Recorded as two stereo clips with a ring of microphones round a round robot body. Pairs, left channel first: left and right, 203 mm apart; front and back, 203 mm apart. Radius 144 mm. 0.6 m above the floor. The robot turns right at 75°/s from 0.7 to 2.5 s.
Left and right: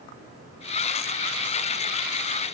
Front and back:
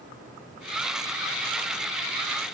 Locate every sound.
Only background noise.